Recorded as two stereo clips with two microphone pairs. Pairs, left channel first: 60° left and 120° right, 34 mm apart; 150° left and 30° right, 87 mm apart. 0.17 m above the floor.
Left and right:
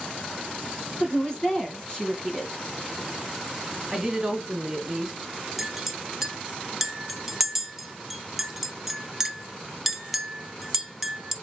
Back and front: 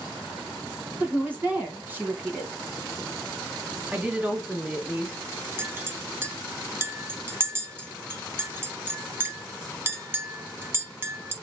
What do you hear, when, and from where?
1.0 s a woman speaking: 20° left, 1.3 m
3.9 s a woman speaking: 80° right, 1.2 m
5.6 s a clink: 50° right, 0.6 m